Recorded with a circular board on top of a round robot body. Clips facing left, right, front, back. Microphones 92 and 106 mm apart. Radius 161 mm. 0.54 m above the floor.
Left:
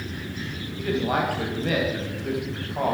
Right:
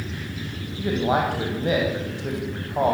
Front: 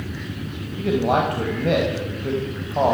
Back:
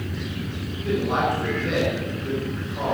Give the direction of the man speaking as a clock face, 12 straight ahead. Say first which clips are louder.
Right 2 dB, front 4 dB; 1 o'clock.